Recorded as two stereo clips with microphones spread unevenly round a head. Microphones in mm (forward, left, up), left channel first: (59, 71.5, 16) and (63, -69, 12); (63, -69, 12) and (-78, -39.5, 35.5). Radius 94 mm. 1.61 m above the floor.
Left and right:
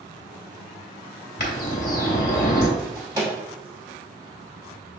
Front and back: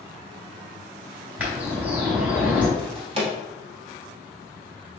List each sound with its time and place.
1.4 s a bird: 85° left, 2 m
2.8 s a drawer: 160° right, 1.5 m